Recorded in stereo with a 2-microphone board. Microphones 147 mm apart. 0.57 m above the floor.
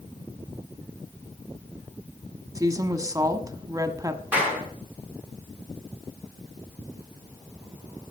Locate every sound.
2.5 s a woman speaking: 25° right (ahead or behind), 1.1 m
4.3 s a clap: 10° right (ahead or behind), 4.5 m